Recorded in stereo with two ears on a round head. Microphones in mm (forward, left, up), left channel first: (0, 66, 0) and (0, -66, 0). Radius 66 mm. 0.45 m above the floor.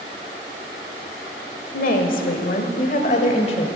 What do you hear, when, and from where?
1.7 s a woman speaking: 60° left (ahead or behind), 1.5 m; by 3.7 s 40° left (ahead or behind), 1.6 m